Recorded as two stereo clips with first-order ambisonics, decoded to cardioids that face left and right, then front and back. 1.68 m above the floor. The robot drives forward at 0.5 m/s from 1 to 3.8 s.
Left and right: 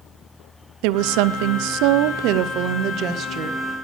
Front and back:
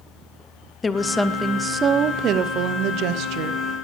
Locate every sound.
0.8 s a woman speaking: 75° right, 0.7 m; by 3.6 s 150° right, 1.3 m